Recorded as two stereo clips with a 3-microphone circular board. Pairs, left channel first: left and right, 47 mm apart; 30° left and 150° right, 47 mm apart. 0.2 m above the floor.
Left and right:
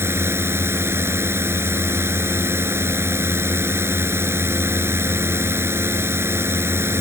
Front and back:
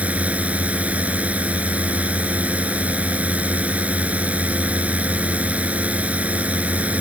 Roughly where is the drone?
Right.